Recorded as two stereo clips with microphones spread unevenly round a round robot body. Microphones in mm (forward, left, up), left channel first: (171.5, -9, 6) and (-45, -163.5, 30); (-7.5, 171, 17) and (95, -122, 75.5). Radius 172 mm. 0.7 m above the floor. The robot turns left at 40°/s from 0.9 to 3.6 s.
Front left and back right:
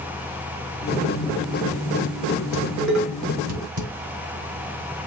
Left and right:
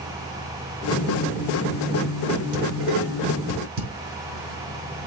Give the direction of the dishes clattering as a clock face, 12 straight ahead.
3 o'clock.